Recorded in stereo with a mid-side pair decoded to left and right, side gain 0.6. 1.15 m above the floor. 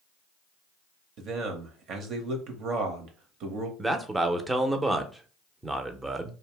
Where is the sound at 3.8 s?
15° right, 0.6 m.